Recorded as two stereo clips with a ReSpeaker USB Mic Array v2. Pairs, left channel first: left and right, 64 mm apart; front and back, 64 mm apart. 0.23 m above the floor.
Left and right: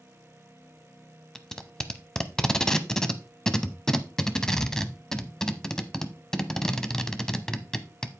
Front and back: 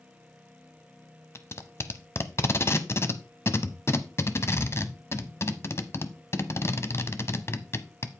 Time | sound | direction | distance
1.4 | tape being pulled | 15° left | 0.8 m